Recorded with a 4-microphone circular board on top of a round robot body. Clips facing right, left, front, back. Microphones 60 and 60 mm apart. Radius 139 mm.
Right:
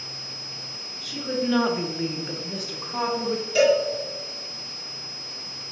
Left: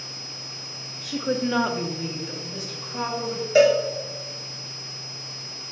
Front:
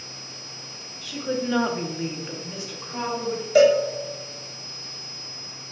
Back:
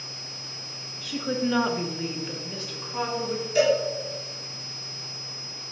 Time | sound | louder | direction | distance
1.0 | a woman speaking | left 2 dB, even | 100° left | 0.8 m
3.5 | a cowbell | left 2 dB, front 6 dB | 30° left | 0.6 m